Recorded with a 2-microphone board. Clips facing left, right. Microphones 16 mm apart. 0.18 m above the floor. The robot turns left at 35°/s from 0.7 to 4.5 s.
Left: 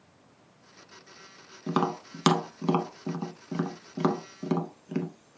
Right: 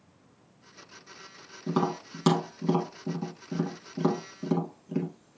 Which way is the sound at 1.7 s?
30° left (ahead or behind).